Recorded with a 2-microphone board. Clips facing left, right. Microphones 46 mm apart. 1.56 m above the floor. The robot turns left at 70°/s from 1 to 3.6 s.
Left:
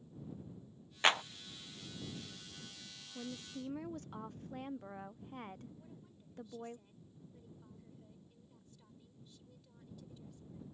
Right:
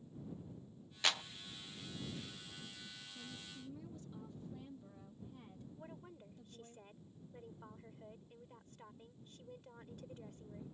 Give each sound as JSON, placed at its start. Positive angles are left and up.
{"t": 1.0, "sound": "a clap", "side_deg": 35}
{"t": 3.1, "sound": "a woman speaking", "azimuth_deg": 120}
{"t": 5.8, "sound": "a woman speaking", "side_deg": -50}